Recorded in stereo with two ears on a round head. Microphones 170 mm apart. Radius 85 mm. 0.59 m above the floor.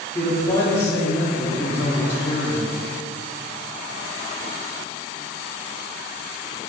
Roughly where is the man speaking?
Centre.